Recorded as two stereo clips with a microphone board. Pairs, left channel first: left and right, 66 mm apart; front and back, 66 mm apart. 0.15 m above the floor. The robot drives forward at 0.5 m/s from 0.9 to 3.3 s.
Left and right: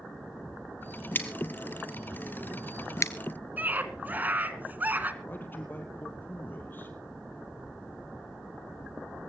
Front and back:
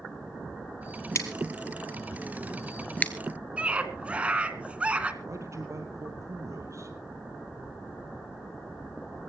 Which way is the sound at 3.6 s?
130° right.